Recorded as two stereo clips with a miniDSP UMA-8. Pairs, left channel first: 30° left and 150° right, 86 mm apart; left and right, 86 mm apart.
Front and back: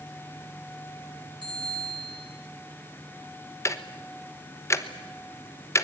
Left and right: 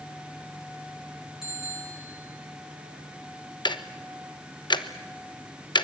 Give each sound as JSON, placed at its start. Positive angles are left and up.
{"t": 1.4, "sound": "a bicycle bell", "azimuth_deg": -175, "distance_m": 9.0}
{"t": 3.6, "sound": "ticking", "azimuth_deg": 80, "distance_m": 1.1}